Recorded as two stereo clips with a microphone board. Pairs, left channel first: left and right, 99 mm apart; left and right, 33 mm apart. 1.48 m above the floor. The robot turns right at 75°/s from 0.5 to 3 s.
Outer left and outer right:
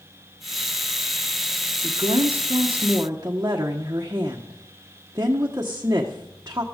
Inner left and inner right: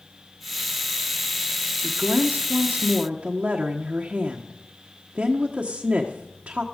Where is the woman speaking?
120° right, 1.2 m; by 6.6 s 30° right, 1.2 m.